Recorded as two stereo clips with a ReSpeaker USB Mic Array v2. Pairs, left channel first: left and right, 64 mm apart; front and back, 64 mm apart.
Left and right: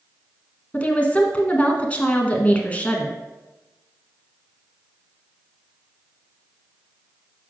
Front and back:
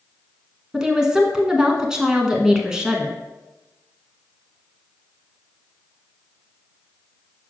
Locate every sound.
0.7 s a woman speaking: 115° left, 1.1 m